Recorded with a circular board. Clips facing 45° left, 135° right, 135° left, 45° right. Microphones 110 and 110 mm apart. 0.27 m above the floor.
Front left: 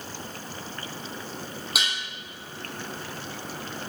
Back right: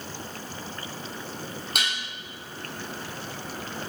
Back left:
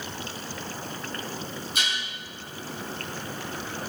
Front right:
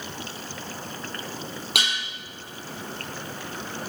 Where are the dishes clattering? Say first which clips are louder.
Even, front right 3 dB; 40° right, 5 m.